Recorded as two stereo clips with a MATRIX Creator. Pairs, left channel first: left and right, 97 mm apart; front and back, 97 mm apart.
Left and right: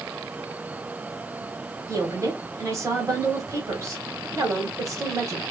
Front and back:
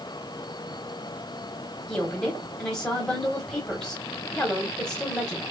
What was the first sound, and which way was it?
A woman speaking, 75° right.